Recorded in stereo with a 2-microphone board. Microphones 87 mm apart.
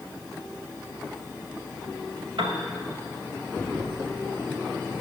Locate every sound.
2.4 s a piano: 75° right (ahead or behind), 1.6 m